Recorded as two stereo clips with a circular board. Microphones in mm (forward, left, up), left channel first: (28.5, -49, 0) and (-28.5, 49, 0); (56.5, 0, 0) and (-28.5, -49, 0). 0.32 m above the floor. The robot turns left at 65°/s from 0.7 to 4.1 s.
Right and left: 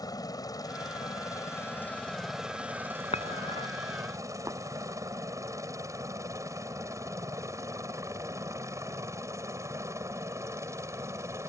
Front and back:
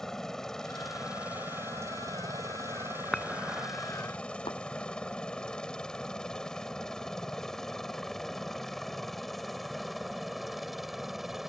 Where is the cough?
No cough in this recording.